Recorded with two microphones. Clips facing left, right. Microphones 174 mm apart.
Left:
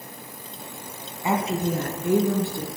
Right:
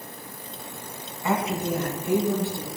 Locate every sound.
1.2 s a woman speaking: 20° left (ahead or behind), 1.0 m; by 2.7 s 65° left (ahead or behind), 2.5 m